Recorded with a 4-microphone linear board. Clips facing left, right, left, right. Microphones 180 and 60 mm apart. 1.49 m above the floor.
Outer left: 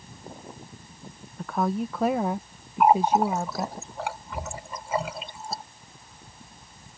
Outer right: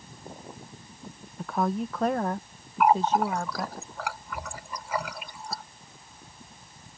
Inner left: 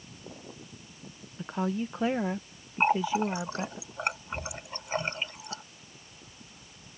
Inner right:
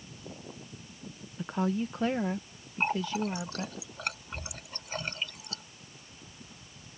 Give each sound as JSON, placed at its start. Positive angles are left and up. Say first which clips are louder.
{"t": 1.4, "sound": "a woman speaking", "louder": "outer left 1 dB, inner right 1 dB", "side_deg": -5}
{"t": 2.8, "sound": "a running tap", "louder": "outer left 2 dB, inner left 5 dB", "side_deg": 25}